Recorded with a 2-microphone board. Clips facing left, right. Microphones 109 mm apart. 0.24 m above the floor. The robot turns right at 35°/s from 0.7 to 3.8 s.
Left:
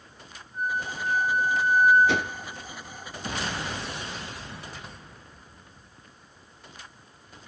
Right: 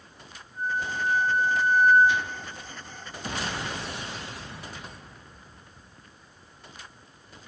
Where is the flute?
90° left, 3 m; by 2.0 s 135° left, 3 m.